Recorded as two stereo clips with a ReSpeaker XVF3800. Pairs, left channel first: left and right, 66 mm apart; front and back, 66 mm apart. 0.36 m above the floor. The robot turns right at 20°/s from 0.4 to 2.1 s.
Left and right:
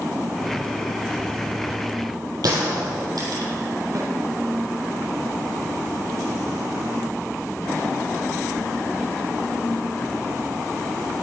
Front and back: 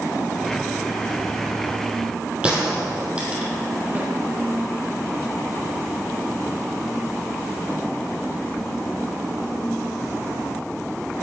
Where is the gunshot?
105° right, 4 m.